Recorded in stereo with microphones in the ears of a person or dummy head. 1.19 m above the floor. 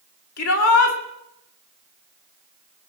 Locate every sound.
0.4 s a shout: 75° left (ahead or behind), 2 m